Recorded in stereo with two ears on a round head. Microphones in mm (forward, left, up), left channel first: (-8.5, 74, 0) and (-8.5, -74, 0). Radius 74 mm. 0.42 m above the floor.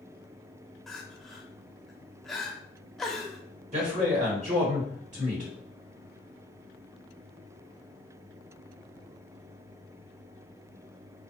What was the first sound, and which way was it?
Crying, 5° left (ahead or behind).